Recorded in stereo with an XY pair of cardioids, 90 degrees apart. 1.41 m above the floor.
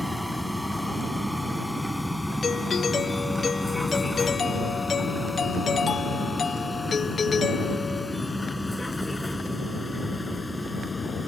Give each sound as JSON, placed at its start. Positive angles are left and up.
{"t": 0.0, "sound": "a vehicle", "azimuth_deg": -5}
{"t": 2.4, "sound": "a doorbell", "azimuth_deg": 45}